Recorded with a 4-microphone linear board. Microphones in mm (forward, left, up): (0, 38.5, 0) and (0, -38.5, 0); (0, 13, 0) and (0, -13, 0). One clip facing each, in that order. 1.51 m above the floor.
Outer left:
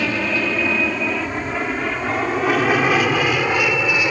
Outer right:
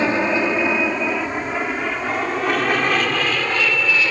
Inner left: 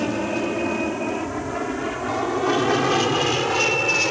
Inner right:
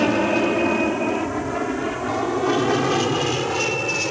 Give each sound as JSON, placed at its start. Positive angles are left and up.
{"t": 0.0, "sound": "an aircraft", "side_deg": -25}